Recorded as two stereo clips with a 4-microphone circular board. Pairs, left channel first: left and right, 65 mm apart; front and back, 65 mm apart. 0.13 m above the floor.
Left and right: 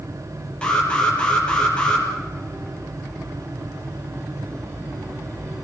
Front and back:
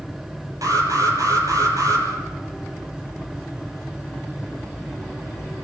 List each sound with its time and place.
0.6 s an alarm: 160° left, 5.5 m